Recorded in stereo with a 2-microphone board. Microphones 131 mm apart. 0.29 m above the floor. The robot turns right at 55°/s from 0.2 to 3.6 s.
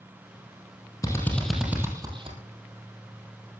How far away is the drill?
About 4.5 m.